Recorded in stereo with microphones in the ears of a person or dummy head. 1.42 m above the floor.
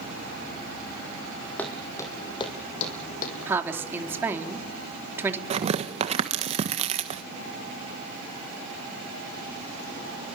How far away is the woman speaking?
About 3 m.